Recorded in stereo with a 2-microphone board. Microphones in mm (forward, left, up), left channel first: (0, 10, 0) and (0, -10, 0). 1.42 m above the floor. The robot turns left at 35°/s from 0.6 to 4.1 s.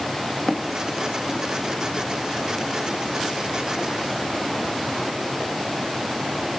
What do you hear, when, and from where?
0.5 s footsteps: 50° left (ahead or behind), 2.5 m; by 6.3 s 5° left (ahead or behind), 7.5 m